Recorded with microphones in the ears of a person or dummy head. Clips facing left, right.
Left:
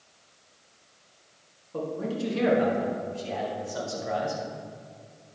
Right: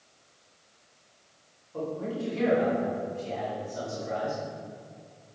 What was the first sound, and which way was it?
A man speaking, 75° left (ahead or behind).